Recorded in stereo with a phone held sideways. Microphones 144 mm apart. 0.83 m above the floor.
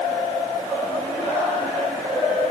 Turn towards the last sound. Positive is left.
No sound to turn to.